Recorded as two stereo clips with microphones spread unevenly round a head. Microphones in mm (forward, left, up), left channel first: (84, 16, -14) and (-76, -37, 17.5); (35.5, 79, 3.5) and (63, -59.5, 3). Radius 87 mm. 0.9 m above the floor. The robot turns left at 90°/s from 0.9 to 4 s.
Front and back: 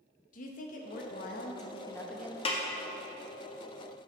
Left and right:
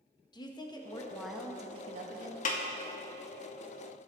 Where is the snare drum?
75° left, 0.8 m; by 2.6 s 60° left, 0.8 m.